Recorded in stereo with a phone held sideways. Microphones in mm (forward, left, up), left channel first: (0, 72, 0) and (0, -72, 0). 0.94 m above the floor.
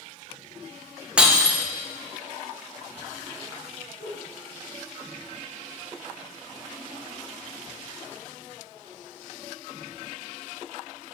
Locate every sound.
1.2 s breaking glass: 10° right (ahead or behind), 0.7 m
4.0 s a whoosh: 75° left (ahead or behind), 2.5 m